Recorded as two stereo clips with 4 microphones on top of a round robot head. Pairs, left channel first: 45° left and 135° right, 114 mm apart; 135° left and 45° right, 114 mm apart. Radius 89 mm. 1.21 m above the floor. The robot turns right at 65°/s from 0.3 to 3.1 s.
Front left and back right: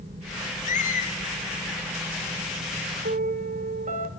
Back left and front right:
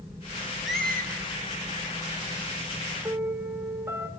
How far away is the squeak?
About 5 m.